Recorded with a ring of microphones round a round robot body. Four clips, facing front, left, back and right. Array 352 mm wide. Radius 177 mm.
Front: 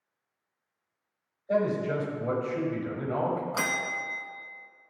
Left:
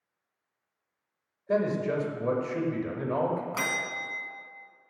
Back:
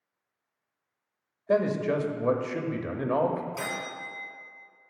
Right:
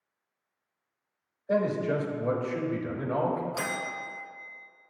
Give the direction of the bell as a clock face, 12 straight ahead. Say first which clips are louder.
Even, front 3 dB; 11 o'clock.